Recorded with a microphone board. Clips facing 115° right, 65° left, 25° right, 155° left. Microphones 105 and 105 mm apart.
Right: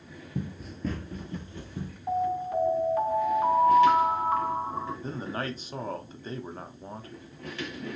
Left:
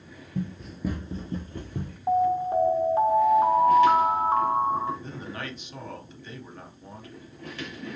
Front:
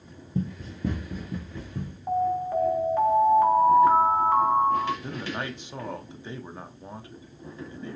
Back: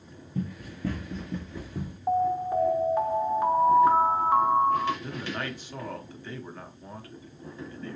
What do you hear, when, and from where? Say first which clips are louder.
0.3 s running footsteps: left 3 dB, front 3 dB; 50° right, 0.7 m; by 2.0 s 80° left, 1.0 m
2.1 s an alarm: left 5 dB, even; 90° left, 1.1 m
5.0 s a man speaking: right 3 dB, front 1 dB; 85° right, 0.7 m